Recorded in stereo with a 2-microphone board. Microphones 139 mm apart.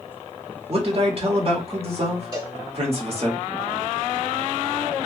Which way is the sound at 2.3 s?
35° right (ahead or behind).